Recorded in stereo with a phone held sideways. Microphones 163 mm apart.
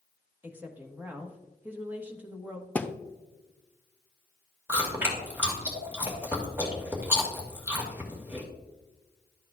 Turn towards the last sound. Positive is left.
turn(degrees=-10)  # may be behind; listen again after turning